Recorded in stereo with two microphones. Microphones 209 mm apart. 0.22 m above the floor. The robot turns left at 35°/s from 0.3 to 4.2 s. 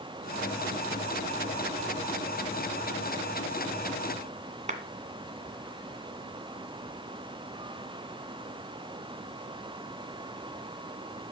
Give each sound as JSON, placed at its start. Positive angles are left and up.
{"t": 4.7, "sound": "a clap", "side_deg": -35, "distance_m": 1.9}